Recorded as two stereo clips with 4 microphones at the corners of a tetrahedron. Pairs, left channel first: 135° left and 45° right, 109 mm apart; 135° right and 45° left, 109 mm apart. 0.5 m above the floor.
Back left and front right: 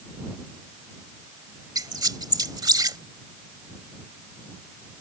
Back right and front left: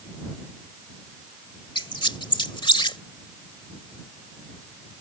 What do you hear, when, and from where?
1.8 s a squeak: 95° right